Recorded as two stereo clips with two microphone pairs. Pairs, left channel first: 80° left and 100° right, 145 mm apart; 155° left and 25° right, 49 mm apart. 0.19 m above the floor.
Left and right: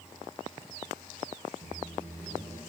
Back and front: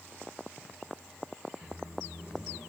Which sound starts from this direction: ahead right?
A microwave, at 1.6 s.